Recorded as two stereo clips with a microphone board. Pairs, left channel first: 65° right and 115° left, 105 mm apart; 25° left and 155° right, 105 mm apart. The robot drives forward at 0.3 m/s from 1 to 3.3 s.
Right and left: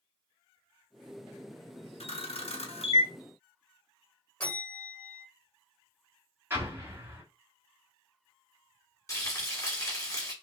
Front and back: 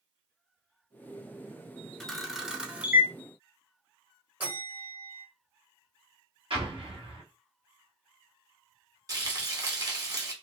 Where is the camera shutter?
65° right, 0.9 m; by 3.1 s 90° right, 0.8 m.